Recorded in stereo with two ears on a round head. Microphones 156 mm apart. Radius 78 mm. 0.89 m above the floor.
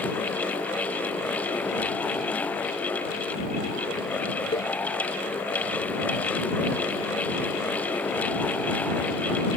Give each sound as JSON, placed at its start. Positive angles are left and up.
{"t": 4.5, "sound": "a cowbell", "side_deg": 30}